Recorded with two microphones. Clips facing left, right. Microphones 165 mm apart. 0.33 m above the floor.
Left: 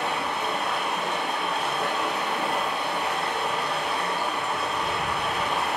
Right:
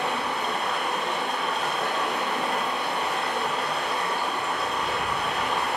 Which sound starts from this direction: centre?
Running water, at 0.0 s.